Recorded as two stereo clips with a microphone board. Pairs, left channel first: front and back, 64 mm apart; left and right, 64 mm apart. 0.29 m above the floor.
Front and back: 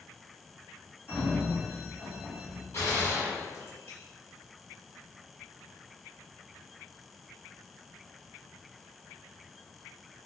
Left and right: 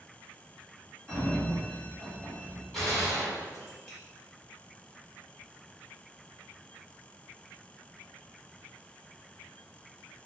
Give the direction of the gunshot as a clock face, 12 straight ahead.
12 o'clock.